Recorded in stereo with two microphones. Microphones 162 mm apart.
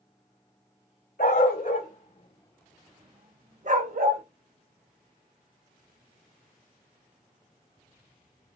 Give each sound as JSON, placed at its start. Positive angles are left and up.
{"t": 1.2, "sound": "a dog barking", "side_deg": 65, "distance_m": 1.4}